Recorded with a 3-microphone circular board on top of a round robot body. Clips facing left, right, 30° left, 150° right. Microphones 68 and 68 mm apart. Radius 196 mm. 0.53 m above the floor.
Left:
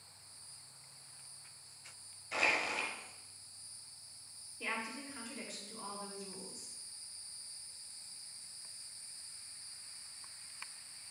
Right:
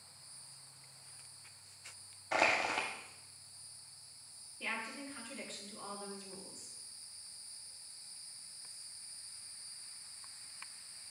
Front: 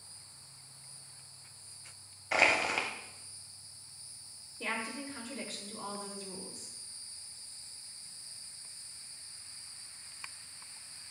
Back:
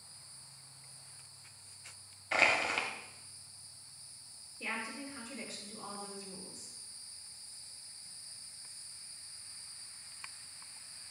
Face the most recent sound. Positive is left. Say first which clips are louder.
# left 1 dB, front 3 dB
turn(degrees=10)